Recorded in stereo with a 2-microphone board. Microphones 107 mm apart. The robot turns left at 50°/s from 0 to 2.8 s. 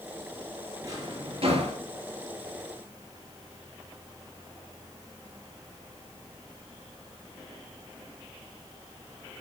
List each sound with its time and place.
0.8 s a drawer: 25° right (ahead or behind), 4.5 m; by 1.8 s 75° right (ahead or behind), 4.5 m